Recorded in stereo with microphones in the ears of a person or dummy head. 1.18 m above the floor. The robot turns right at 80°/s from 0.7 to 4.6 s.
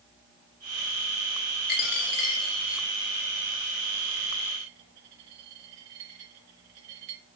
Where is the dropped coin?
60° left (ahead or behind), 2.5 m; by 7.2 s 55° right (ahead or behind), 2.5 m.